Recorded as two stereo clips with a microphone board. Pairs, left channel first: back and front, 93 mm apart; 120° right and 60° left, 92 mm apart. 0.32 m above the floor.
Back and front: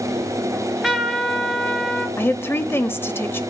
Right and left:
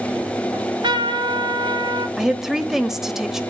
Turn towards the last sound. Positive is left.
turn(degrees=140)